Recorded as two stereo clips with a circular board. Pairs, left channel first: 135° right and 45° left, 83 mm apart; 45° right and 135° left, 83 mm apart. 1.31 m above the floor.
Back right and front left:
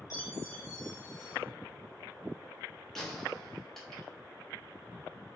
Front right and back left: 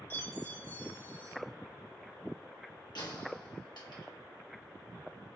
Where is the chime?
100° right, 1.3 m.